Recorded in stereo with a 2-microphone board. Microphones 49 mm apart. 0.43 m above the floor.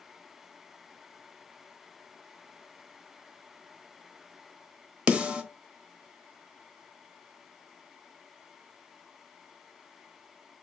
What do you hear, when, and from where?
5.1 s a snare drum: 20° right (ahead or behind), 0.9 m